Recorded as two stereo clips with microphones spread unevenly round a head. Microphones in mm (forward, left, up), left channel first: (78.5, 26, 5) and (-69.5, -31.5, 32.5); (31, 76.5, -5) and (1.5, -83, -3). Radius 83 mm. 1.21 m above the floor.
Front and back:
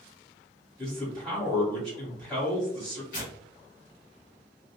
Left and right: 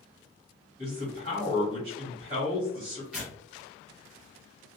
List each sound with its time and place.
0.8 s a man speaking: 60° right, 1.5 m
3.1 s tearing paper: 15° right, 1.7 m